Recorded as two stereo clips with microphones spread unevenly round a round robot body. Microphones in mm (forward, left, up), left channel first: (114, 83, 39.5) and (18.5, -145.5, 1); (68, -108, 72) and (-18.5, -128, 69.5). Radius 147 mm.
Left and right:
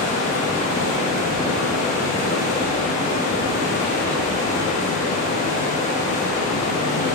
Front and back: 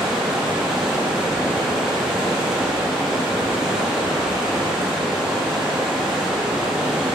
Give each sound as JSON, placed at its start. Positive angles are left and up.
{"t": 0.0, "sound": "running water", "azimuth_deg": 115, "distance_m": 1.0}